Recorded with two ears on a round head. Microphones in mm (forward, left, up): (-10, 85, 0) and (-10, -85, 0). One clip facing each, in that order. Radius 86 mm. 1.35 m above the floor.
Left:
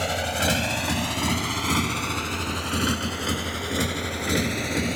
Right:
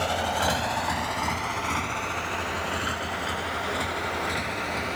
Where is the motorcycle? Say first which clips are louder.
Even; 20° left (ahead or behind); by 5.0 s 55° left (ahead or behind).